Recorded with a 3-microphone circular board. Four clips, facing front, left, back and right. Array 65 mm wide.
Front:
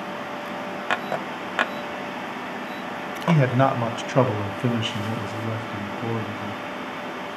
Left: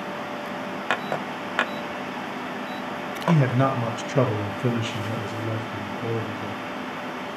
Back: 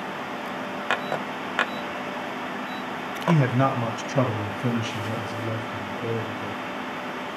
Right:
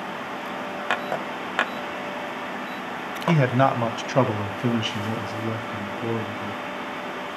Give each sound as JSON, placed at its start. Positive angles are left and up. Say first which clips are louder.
{"t": 3.3, "sound": "a man speaking", "louder": "right 2 dB, front 2 dB", "azimuth_deg": -65, "distance_m": 1.3}